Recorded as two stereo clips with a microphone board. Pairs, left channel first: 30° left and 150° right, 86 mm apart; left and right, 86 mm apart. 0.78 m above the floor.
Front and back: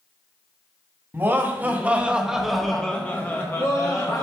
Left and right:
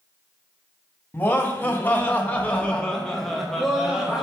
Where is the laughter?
155° left, 1.2 m; by 4.2 s 10° right, 1.1 m.